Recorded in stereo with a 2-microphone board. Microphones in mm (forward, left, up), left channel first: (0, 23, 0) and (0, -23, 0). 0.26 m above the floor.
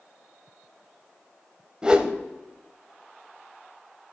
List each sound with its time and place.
1.8 s a whoosh: 20° right (ahead or behind), 0.7 m